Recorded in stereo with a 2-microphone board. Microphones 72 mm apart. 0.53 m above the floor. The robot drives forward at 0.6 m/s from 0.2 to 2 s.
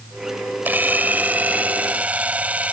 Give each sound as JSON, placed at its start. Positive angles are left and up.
{"t": 0.7, "sound": "a camera shutter", "side_deg": -25}